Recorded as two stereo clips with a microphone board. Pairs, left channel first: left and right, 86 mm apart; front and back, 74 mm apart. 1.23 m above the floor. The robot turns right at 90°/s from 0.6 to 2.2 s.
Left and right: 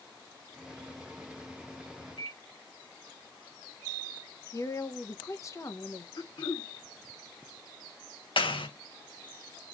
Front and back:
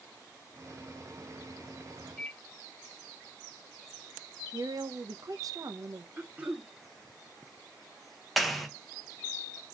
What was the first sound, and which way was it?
A microwave, 85° left.